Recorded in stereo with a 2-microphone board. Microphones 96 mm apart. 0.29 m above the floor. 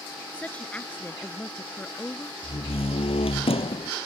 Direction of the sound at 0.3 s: 15° left (ahead or behind).